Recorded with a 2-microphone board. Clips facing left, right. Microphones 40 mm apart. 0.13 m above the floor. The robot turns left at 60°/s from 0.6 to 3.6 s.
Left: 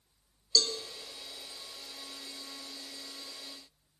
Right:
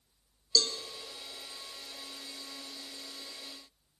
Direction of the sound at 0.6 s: 10° right (ahead or behind).